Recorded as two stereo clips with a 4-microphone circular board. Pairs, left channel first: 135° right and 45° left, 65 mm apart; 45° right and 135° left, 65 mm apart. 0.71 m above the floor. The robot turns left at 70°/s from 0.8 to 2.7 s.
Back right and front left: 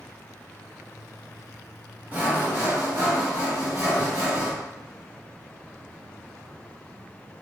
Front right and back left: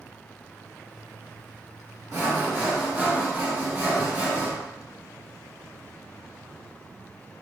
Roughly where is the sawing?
Left.